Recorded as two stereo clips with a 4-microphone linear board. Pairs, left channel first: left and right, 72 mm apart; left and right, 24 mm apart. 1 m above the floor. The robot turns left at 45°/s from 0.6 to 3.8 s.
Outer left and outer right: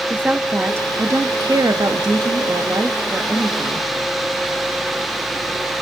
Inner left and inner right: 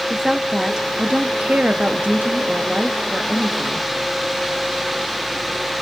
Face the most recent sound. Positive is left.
turn(degrees=-170)